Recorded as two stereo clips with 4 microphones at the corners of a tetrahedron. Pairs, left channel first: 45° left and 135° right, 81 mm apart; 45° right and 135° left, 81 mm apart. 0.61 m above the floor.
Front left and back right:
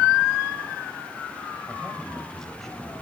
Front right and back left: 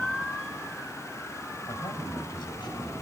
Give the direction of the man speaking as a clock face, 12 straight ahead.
1 o'clock.